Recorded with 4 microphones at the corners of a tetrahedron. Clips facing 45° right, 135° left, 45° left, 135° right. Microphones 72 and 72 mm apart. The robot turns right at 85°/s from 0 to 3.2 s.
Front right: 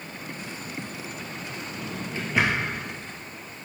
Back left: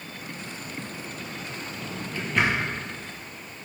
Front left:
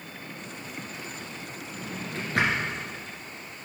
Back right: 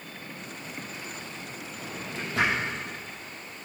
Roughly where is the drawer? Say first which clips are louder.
Front right 2 dB, front left 2 dB; ahead.